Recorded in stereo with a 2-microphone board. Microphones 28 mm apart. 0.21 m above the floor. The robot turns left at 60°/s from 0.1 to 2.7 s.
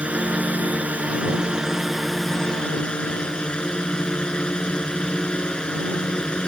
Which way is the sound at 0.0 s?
60° right.